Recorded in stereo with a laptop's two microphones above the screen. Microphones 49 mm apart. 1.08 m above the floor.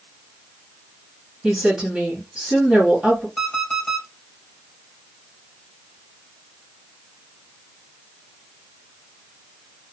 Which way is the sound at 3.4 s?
20° left (ahead or behind).